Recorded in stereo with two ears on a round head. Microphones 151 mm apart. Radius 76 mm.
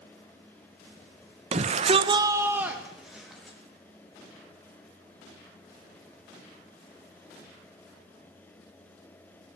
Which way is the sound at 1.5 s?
35° right (ahead or behind).